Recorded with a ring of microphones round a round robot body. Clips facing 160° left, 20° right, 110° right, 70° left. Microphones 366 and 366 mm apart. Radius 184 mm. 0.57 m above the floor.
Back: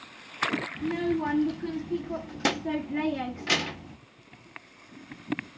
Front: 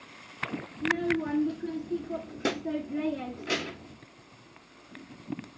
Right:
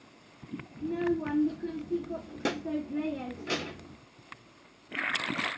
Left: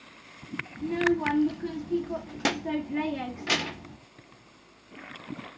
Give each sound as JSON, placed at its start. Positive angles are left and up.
{"t": 0.8, "sound": "a child speaking", "azimuth_deg": 115, "distance_m": 0.5}